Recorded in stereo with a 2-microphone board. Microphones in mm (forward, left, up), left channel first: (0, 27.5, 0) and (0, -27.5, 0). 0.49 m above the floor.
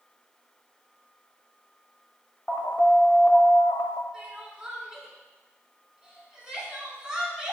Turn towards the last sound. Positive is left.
turn(degrees=-15)  # may be behind; listen again after turning